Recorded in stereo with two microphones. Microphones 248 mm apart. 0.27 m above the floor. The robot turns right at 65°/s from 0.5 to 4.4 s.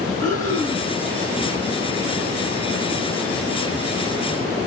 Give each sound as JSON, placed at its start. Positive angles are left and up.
{"t": 0.2, "sound": "breathing", "side_deg": -55, "distance_m": 1.4}